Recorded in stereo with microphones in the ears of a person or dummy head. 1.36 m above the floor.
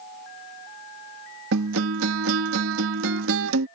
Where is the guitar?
70° right (ahead or behind).